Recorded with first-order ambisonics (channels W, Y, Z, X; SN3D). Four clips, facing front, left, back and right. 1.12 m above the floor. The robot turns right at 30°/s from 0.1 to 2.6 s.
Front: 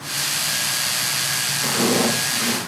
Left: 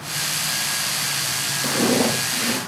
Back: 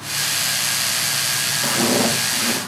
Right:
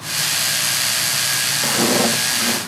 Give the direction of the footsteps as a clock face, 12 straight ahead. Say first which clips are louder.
Right 1 dB, even; 3 o'clock.